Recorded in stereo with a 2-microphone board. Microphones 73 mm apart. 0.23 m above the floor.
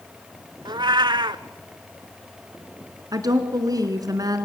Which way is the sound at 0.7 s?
80° right.